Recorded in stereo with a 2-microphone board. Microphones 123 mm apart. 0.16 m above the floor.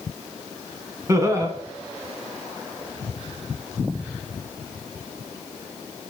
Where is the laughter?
25° right (ahead or behind), 1.5 m.